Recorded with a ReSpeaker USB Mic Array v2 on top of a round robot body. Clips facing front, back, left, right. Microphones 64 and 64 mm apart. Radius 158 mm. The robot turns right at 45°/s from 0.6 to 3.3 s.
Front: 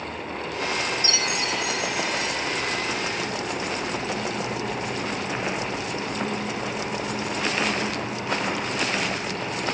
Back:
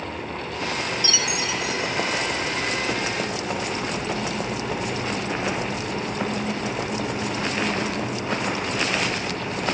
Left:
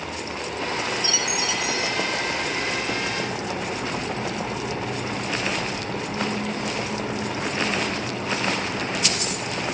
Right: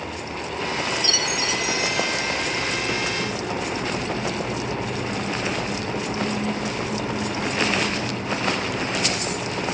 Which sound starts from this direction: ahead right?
A chime, at 1.0 s.